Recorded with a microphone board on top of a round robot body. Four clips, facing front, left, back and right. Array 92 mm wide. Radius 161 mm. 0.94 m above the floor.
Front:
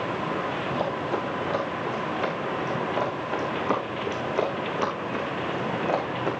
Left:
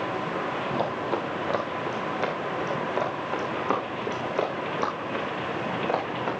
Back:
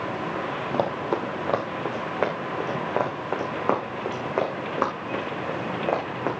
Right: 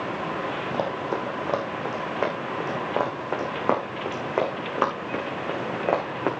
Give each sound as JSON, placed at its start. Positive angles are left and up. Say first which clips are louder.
{"t": 0.7, "sound": "running footsteps", "louder": "right 1 dB, back 5 dB", "azimuth_deg": -165, "distance_m": 3.0}